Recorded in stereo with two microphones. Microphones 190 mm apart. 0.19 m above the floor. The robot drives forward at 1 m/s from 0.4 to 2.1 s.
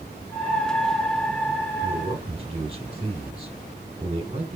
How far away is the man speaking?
About 5.5 m.